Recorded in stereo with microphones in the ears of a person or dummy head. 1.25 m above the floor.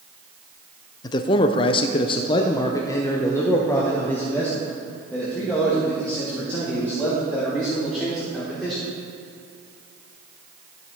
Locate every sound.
1.0 s a man speaking: 25° left (ahead or behind), 0.6 m; by 8.9 s 5° left (ahead or behind), 3.5 m